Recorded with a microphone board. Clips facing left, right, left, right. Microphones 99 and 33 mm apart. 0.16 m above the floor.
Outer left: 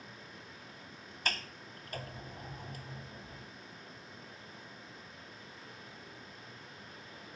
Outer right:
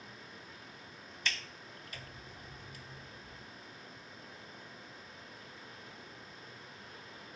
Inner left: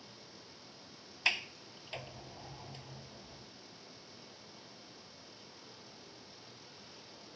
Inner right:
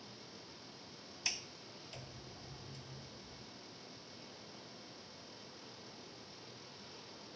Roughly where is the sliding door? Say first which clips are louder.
Outer left 3 dB, inner left 10 dB; left.